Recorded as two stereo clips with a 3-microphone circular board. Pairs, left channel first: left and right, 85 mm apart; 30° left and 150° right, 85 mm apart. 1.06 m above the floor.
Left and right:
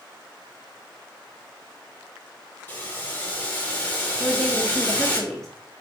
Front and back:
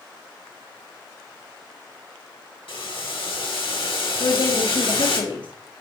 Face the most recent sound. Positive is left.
turn(degrees=5)